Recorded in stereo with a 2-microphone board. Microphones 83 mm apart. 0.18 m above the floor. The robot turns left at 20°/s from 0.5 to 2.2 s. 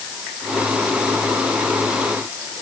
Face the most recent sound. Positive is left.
No sound to turn to.